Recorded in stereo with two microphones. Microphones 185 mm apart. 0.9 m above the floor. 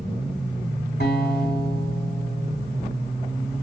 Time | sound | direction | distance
1.0 | a guitar | 70° left (ahead or behind) | 3 m